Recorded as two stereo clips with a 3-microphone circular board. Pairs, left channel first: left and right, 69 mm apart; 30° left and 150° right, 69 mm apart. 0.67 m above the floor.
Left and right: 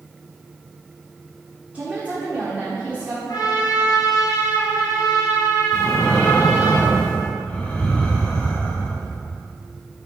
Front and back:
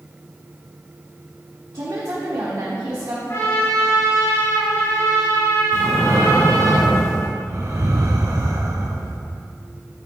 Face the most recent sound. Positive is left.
turn(degrees=170)